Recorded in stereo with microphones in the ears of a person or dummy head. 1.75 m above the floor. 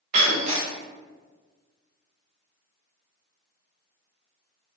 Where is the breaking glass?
30° right (ahead or behind), 0.9 m.